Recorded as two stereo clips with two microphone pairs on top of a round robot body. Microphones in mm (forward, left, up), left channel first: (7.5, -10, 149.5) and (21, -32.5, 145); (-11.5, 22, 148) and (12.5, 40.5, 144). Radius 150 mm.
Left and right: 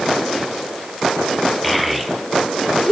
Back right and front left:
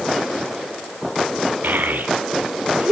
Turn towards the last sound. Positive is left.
turn(degrees=25)